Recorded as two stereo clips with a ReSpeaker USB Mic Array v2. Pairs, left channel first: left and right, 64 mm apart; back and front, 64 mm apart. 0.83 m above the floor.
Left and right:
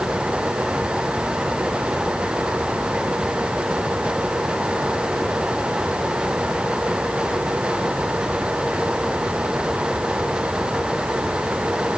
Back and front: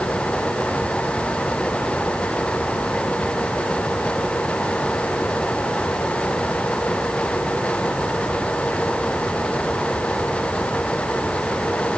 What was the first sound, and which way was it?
Only background noise.